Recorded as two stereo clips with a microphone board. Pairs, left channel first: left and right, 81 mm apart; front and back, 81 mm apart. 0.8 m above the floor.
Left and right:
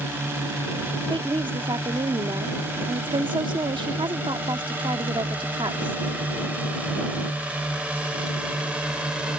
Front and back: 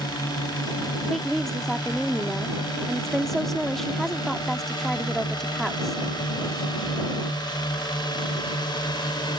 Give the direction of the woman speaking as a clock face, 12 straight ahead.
3 o'clock.